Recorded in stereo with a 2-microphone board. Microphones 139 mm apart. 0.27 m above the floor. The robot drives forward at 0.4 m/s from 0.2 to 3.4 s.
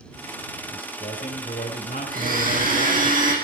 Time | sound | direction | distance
0.7 | a man speaking | 65° left (ahead or behind) | 4.5 m
2.1 | a blender | 70° right (ahead or behind) | 7.5 m